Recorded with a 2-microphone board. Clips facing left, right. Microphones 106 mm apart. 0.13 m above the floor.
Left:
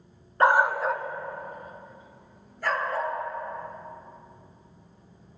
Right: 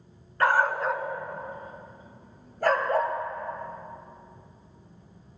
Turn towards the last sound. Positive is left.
turn(degrees=-55)  # may be behind; listen again after turning